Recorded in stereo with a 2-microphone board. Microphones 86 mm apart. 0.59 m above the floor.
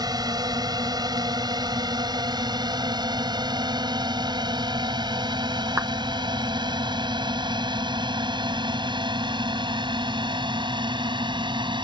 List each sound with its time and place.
0.0 s a drone: 50° right (ahead or behind); by 11.8 s 65° right (ahead or behind)
5.8 s a clap: 30° right (ahead or behind)